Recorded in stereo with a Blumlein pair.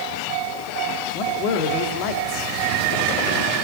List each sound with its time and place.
1.1 s a man speaking: 40° left, 2.5 m